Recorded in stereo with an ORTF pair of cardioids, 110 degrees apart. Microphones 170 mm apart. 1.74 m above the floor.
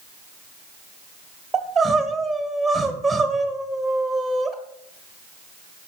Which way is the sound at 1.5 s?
Straight ahead.